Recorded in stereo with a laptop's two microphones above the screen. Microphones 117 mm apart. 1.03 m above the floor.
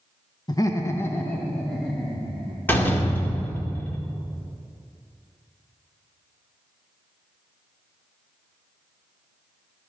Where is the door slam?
15° left (ahead or behind), 1.9 m.